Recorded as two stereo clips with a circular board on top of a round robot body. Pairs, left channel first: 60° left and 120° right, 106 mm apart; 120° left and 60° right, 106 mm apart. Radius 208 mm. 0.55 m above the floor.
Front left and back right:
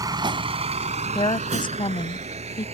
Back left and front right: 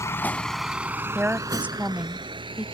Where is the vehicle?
175° right; by 2.8 s 100° right.